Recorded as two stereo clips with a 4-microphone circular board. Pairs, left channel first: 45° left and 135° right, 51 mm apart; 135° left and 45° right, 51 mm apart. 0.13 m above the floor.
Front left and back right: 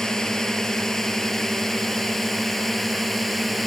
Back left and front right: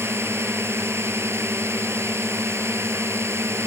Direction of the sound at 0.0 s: 35° right.